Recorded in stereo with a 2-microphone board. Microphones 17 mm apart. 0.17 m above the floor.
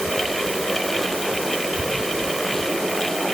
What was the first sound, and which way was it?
Only background noise.